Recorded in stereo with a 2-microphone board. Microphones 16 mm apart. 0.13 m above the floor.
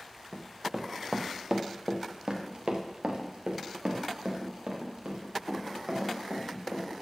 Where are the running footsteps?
15° right (ahead or behind), 1.1 m; by 6.9 s 75° right (ahead or behind), 4.5 m.